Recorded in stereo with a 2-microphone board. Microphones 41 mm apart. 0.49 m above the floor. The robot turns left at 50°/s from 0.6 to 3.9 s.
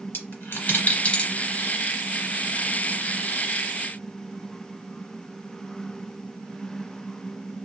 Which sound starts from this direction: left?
A dropped coin, at 0.1 s.